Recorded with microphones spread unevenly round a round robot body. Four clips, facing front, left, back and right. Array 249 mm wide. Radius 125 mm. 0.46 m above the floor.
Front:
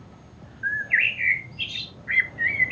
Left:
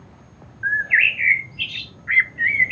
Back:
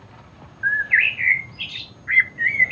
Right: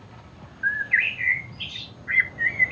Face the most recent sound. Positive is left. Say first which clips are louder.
# left 4 dB, back 5 dB
turn(degrees=100)